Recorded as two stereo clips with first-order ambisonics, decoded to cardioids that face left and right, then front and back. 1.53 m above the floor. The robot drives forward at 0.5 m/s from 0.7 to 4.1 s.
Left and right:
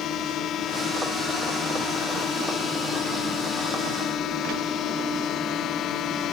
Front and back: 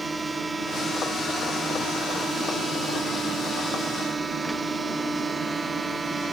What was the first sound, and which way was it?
A drone, 105° left.